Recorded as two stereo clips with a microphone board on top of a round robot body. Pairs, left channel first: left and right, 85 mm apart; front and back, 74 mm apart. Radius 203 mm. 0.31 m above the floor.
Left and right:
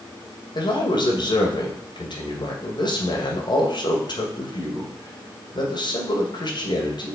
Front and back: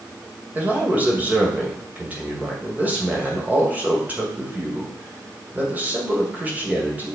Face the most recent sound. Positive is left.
turn(degrees=115)